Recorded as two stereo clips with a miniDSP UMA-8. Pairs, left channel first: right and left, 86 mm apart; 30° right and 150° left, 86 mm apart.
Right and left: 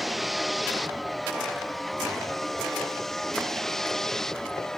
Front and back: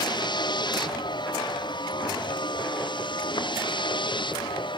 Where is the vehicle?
Straight ahead; by 4.8 s 5° right.